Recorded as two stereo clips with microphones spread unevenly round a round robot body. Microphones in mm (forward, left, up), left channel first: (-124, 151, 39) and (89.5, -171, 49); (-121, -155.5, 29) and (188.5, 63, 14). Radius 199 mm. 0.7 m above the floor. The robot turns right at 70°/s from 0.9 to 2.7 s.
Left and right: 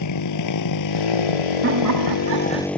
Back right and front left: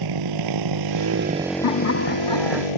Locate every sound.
0.0 s a motorcycle: 75° left; by 2.8 s 150° right
1.6 s laughter: 115° right; by 2.7 s 40° right